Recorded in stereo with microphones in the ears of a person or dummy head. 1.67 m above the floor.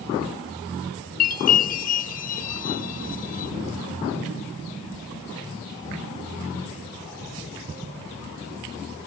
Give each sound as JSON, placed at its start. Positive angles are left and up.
{"t": 1.2, "sound": "a chime", "side_deg": 45}